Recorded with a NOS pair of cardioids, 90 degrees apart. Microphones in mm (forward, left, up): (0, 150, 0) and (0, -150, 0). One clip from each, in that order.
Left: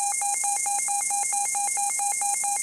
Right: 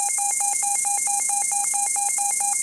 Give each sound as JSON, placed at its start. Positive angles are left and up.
{"t": 0.0, "sound": "an insect", "azimuth_deg": -55, "distance_m": 5.5}